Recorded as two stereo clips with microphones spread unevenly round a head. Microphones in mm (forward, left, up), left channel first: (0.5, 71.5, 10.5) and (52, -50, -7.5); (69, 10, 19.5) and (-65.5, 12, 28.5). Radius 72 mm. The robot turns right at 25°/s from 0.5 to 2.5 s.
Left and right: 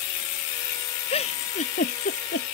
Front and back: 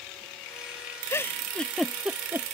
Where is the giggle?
70° left; by 2.5 s 105° left.